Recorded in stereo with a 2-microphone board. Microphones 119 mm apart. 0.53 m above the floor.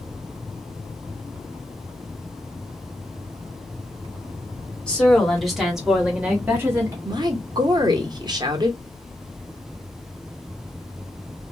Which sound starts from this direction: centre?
A woman speaking, at 4.9 s.